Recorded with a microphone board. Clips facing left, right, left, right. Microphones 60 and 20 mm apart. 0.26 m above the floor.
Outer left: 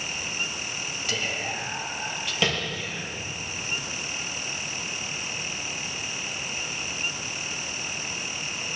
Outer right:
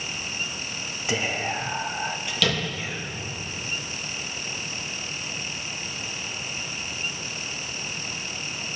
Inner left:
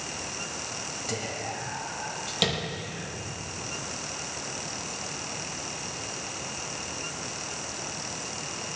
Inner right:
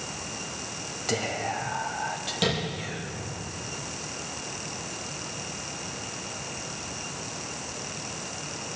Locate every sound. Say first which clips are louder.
1.1 s whispering: outer right 4 dB, inner right 7 dB; 25° right (ahead or behind), 1.4 m
2.4 s tapping: outer right 1 dB, even; 25° left (ahead or behind), 6 m